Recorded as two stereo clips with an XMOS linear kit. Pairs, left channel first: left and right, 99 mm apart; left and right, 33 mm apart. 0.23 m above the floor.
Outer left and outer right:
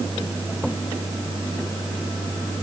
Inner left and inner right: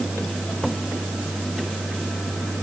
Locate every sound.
Only background noise.